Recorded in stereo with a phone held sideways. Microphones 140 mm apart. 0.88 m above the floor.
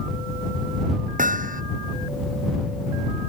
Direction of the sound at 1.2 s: 70° right (ahead or behind).